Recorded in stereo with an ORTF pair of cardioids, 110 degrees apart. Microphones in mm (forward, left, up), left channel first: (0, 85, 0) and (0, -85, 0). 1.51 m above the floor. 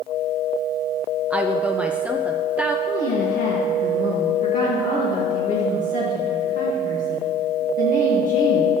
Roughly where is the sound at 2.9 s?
Ahead left.